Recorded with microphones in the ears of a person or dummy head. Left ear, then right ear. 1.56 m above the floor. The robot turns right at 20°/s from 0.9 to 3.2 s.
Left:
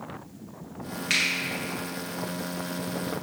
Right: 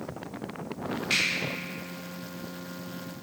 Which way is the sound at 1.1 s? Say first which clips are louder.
Left 2 dB; 25° left (ahead or behind).